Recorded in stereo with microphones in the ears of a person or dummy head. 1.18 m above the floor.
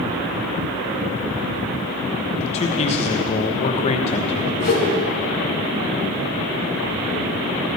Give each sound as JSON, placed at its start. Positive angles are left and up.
{"t": 2.4, "sound": "a man speaking", "side_deg": 30, "distance_m": 1.1}
{"t": 4.6, "sound": "a whoosh", "side_deg": 50, "distance_m": 3.5}